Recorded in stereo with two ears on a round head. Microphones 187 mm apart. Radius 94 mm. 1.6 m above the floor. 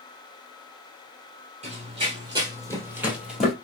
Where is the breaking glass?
I don't hear breaking glass.